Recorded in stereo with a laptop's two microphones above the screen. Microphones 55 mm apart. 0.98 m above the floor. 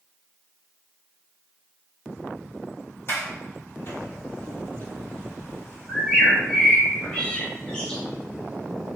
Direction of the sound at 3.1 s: 45° left (ahead or behind).